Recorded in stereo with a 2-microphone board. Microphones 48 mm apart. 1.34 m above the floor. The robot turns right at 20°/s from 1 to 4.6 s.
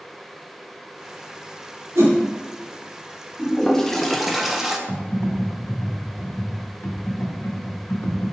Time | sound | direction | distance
1.9 | a whoosh | 80° right | 1.5 m
3.4 | a toilet flushing | 15° left (ahead or behind) | 0.7 m
4.9 | typing on a keyboard | 80° left | 1.5 m